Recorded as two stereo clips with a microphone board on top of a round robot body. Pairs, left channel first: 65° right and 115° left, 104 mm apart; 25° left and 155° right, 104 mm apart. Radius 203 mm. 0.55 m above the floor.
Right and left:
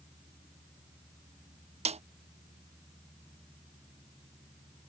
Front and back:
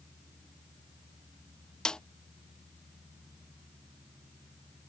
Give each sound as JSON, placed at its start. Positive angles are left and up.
{"t": 1.9, "sound": "a snare drum", "azimuth_deg": 105}